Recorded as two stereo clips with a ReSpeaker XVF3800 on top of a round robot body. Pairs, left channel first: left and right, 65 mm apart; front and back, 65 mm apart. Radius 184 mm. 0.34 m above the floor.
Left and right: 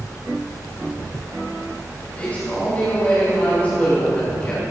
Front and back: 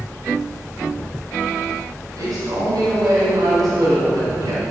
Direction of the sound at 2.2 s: 160° left.